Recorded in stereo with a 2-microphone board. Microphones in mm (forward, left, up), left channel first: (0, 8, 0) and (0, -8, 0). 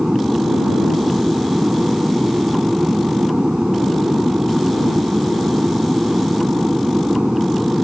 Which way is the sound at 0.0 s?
40° right (ahead or behind).